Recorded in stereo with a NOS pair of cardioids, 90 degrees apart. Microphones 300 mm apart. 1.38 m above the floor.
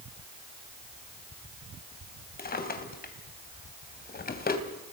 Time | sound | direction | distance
2.4 | a drawer | 30° left | 3.5 m